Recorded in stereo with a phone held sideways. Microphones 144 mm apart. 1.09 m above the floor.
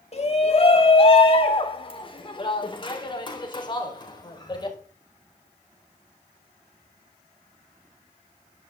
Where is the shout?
45° left (ahead or behind), 2.5 m; by 4.8 s 30° left (ahead or behind), 5 m.